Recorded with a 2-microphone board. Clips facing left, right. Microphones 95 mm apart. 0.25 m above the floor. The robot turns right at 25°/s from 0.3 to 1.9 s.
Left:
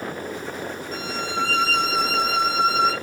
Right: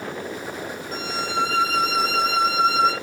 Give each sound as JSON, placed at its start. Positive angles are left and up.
{"t": 0.9, "sound": "a violin", "side_deg": -25, "distance_m": 3.0}